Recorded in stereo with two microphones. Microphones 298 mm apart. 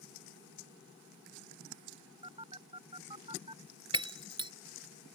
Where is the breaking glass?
15° right (ahead or behind).